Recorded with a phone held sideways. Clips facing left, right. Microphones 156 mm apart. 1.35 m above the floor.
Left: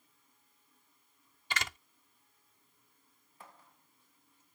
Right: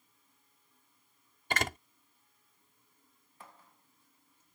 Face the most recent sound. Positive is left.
turn(degrees=-50)  # may be behind; listen again after turning